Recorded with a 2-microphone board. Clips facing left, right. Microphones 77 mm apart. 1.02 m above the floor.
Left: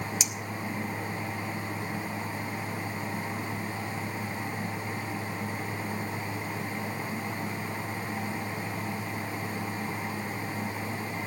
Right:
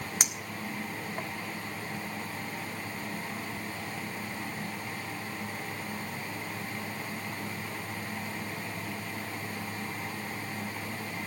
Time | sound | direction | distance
0.2 | a clink | 55° right (ahead or behind) | 1.6 m